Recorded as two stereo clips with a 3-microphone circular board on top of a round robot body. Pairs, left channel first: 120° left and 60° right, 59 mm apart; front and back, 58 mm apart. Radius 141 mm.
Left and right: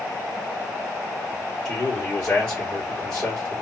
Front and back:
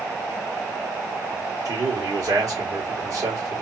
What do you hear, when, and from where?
1.6 s a man speaking: 175° right, 3 m